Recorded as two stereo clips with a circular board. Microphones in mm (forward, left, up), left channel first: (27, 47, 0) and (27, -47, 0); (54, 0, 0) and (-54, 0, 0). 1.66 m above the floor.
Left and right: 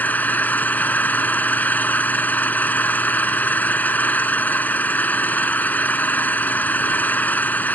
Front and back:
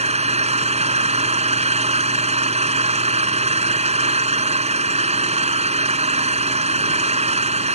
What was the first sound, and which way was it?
An engine running, 165° left.